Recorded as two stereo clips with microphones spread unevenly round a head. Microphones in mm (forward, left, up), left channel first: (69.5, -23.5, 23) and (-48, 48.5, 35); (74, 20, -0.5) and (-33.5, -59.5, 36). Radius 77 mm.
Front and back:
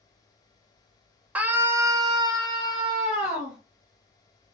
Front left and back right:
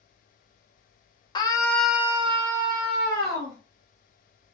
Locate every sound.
1.4 s a scream: 65° left, 0.9 m; by 3.6 s 140° right, 1.5 m